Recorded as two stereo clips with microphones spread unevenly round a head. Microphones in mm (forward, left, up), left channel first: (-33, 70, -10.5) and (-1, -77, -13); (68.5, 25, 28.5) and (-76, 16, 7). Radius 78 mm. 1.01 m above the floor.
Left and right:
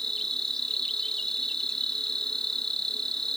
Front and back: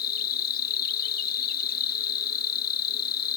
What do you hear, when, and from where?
0.0 s an insect: 15° left